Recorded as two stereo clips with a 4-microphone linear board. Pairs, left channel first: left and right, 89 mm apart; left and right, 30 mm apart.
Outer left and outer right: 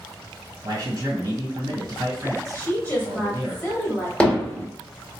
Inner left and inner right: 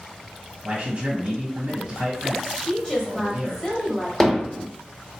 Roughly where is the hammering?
Centre.